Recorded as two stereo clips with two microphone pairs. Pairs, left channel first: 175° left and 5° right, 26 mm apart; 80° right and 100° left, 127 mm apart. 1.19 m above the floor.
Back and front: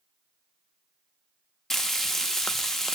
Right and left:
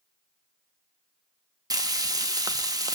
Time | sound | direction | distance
1.7 | frying | 110° left | 0.8 m